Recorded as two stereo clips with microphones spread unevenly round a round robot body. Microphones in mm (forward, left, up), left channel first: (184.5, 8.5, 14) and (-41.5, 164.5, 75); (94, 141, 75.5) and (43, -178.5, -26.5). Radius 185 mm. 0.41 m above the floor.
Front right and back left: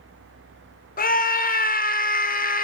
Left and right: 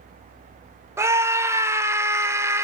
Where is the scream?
40° right, 0.9 m.